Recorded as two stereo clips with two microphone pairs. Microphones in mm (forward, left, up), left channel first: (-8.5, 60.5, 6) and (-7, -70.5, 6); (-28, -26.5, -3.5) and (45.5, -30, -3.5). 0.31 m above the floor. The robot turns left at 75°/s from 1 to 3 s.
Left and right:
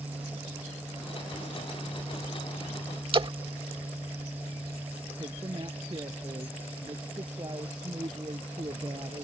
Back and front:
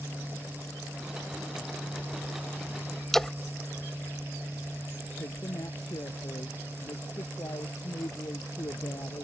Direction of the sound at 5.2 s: 145° right.